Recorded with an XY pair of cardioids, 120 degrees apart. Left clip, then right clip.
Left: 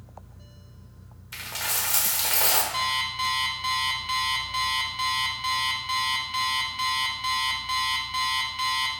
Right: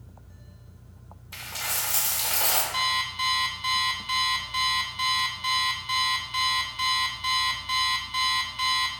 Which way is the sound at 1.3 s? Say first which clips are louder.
Left 2 dB; 25° left.